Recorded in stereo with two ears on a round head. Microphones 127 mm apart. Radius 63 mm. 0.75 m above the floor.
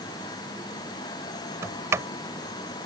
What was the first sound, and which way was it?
A sliding door, 20° right (ahead or behind).